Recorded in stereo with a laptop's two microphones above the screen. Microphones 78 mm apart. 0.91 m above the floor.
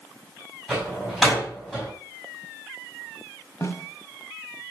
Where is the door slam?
5° left (ahead or behind), 5.5 m.